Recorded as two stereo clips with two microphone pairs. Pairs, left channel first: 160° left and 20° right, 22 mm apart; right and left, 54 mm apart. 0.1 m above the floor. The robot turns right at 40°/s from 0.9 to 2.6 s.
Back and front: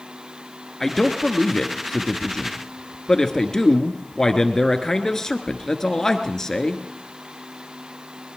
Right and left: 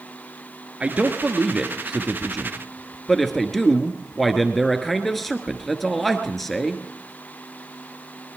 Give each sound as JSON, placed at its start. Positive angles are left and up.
{"t": 0.8, "sound": "a man speaking", "azimuth_deg": 115, "distance_m": 1.2}